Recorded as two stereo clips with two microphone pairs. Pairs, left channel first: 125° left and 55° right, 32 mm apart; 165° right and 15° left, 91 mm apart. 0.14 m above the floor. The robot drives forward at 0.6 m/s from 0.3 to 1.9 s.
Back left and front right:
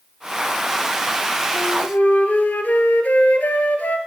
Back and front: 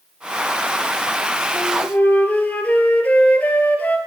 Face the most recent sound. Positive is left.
turn(degrees=125)